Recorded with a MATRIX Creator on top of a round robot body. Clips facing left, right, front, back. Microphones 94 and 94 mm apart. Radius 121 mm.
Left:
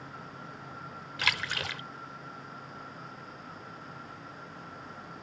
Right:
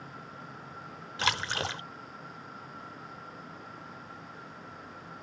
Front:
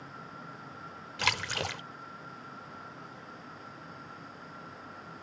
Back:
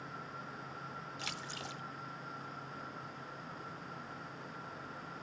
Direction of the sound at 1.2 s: 30° right.